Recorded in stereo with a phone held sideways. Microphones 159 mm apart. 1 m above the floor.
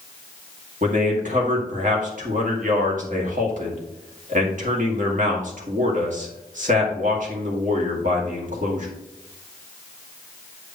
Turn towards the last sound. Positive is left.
turn(degrees=-55)  # may be behind; listen again after turning